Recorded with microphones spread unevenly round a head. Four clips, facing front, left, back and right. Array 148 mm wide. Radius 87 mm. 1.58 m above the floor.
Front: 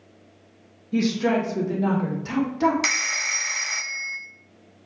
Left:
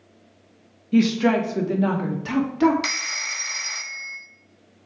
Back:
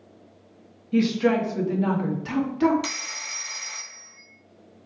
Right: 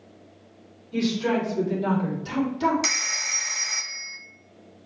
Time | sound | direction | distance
0.9 | a woman speaking | 65° left | 1.3 m
2.8 | a phone ringing | 10° right | 0.5 m